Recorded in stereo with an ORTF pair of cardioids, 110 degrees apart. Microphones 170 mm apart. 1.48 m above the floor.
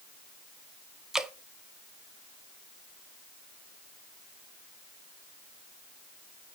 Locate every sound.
1.1 s dripping: 5° right, 0.7 m